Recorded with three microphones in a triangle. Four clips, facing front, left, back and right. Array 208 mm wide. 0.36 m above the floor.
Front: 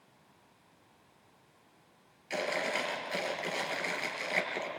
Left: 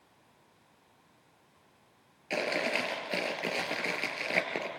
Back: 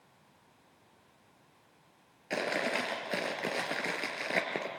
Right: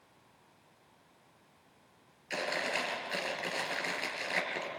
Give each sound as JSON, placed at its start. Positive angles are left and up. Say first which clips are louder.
{"t": 2.3, "sound": "chewing", "louder": "left 4 dB, back 1 dB", "azimuth_deg": 135, "distance_m": 3.0}